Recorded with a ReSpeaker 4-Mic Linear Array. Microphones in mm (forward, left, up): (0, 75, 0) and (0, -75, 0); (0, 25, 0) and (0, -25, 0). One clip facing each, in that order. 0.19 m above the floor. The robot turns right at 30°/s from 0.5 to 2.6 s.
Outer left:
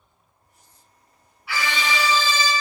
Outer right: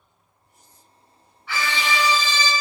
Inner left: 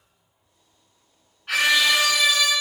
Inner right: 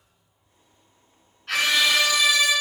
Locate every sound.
1.5 s a scream: 10° left, 2.0 m; by 2.5 s 45° left, 2.0 m